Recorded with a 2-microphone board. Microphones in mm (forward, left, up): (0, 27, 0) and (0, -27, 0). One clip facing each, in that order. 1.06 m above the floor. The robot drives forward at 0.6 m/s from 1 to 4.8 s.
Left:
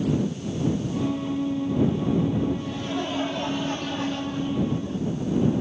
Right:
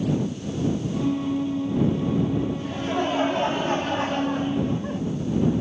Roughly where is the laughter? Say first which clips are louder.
Right 3 dB; right.